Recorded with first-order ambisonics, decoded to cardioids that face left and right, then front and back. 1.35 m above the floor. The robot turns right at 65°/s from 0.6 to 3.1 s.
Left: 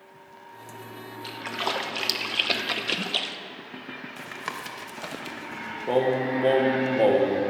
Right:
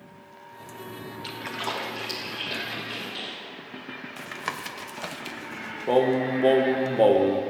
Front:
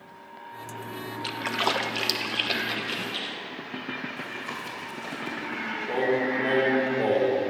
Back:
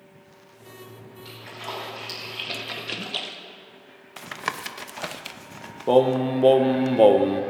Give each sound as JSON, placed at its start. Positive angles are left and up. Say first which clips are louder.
{"t": 1.2, "sound": "a splash", "louder": "left 2 dB, front 10 dB", "azimuth_deg": -10, "distance_m": 1.0}
{"t": 4.2, "sound": "tapping", "louder": "right 2 dB, back 3 dB", "azimuth_deg": -170, "distance_m": 0.8}
{"t": 5.9, "sound": "singing", "louder": "right 2 dB, back 7 dB", "azimuth_deg": -170, "distance_m": 0.9}